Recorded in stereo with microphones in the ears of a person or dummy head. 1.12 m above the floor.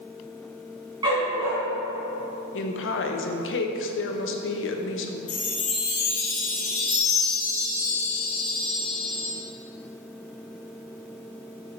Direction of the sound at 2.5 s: 60° left (ahead or behind).